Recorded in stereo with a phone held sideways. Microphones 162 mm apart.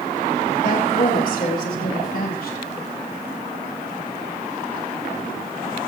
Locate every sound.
0.6 s a woman speaking: 55° left (ahead or behind), 4.5 m; by 2.6 s 65° left (ahead or behind), 5.5 m